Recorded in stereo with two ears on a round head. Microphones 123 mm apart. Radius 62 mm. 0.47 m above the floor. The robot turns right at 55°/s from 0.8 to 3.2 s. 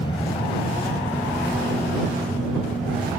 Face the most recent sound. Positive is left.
turn(degrees=-65)  # may be behind; listen again after turning